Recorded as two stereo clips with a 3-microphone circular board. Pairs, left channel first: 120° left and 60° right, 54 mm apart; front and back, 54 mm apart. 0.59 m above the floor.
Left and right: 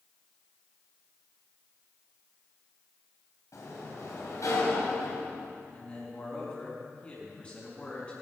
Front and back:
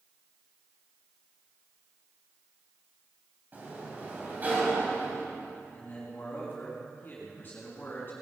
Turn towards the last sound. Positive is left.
turn(degrees=60)